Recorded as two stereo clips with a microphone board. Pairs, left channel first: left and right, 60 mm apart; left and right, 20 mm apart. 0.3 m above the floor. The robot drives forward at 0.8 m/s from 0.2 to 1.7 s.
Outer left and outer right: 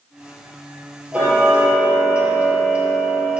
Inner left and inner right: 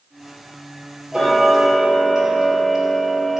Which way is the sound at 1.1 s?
20° right (ahead or behind).